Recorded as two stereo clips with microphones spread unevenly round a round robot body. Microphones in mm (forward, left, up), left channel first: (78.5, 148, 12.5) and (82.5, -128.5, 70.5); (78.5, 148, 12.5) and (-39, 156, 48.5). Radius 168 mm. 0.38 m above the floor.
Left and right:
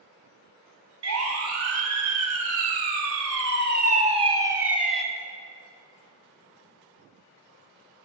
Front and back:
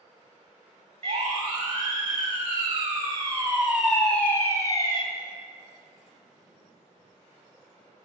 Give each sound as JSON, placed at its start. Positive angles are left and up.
{"t": 1.0, "sound": "a siren", "azimuth_deg": -140, "distance_m": 4.5}